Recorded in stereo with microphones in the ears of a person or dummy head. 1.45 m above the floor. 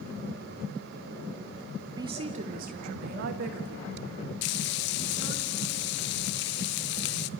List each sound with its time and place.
2.0 s a woman speaking: 30° right (ahead or behind), 0.8 m; by 5.4 s 85° right, 3.5 m
4.4 s frying: 55° left (ahead or behind), 0.6 m